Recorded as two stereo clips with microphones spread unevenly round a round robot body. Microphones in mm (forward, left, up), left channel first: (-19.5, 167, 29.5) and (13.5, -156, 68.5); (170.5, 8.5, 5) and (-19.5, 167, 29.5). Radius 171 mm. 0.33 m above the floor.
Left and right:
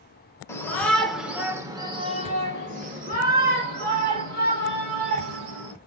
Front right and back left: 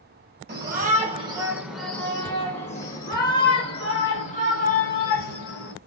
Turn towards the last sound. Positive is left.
turn(degrees=-25)